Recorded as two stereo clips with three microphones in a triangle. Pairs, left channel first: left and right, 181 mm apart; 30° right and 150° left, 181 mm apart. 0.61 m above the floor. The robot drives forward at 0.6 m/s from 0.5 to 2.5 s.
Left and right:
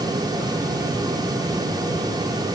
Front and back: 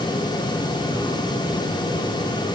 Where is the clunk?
I don't hear a clunk.